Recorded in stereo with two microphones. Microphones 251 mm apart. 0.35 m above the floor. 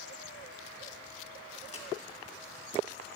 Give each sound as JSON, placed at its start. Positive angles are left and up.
{"t": 1.6, "sound": "a crack", "side_deg": 70, "distance_m": 1.3}